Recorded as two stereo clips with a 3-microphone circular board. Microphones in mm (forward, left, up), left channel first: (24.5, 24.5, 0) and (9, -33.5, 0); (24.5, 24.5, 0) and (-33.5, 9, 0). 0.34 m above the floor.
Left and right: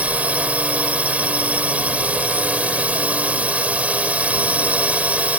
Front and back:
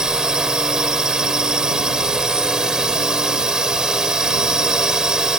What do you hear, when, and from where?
0.0 s a drone: 105° right